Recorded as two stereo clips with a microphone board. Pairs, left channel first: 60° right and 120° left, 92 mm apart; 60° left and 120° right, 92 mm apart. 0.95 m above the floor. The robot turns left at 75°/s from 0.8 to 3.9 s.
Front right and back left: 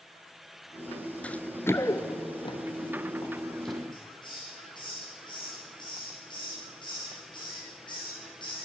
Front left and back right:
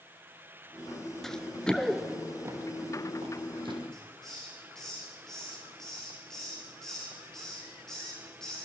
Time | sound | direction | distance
1.2 | running footsteps | 15° right | 0.9 m
3.9 | a hiss | 25° right | 8 m